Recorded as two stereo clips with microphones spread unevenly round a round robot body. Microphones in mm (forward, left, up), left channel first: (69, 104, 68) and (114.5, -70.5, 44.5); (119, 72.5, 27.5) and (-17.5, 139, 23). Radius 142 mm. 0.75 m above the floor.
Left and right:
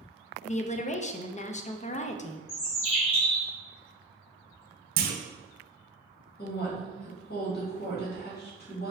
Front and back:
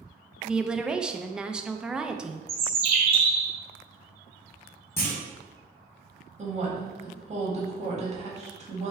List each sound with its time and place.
0.4 s a woman speaking: 75° left, 0.5 m
2.5 s a bird: 130° left, 1.1 m
5.0 s a clunk: 105° right, 0.5 m
6.4 s a woman speaking: 125° left, 1.6 m